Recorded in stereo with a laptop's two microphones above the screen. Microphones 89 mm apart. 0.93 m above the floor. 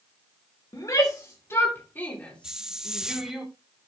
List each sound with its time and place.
0.7 s a shout: 40° left (ahead or behind), 2.5 m; by 3.4 s 5° right (ahead or behind), 2.5 m
2.4 s a hiss: 10° right (ahead or behind), 0.6 m